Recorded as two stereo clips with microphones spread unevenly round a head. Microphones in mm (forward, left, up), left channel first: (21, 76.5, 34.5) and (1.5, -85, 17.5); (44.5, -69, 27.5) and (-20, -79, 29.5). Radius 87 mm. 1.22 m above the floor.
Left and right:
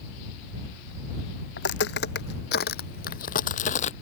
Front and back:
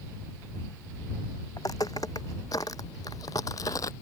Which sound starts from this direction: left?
Footsteps, at 1.6 s.